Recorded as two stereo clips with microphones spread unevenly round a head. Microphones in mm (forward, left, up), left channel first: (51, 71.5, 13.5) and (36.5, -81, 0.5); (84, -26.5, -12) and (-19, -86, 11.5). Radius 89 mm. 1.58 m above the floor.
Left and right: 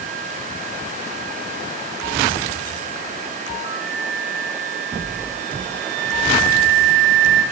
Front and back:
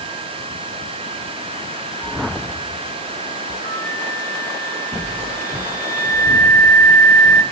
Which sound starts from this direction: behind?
A flute, at 3.6 s.